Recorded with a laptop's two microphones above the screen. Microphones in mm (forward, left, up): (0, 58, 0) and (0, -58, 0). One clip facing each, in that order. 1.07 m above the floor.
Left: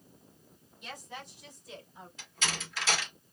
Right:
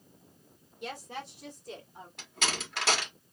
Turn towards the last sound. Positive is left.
turn(degrees=-60)  # may be behind; listen again after turning